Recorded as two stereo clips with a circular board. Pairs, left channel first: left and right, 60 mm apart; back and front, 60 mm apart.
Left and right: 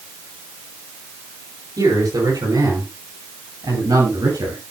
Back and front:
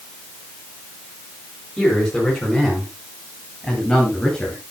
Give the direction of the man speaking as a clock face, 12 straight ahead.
3 o'clock.